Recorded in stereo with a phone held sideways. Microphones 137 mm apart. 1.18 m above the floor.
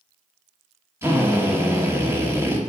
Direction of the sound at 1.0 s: 20° right (ahead or behind).